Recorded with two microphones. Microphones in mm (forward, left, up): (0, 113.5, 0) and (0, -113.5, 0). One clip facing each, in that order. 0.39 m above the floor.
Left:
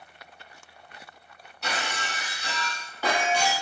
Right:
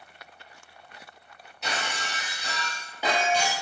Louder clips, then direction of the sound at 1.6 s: Left 1 dB; 20° right (ahead or behind).